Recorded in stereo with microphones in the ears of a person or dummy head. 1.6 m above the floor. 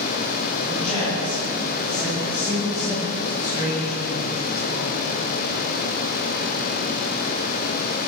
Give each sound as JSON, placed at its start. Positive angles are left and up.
{"t": 0.6, "sound": "a man speaking", "side_deg": 10, "distance_m": 8.0}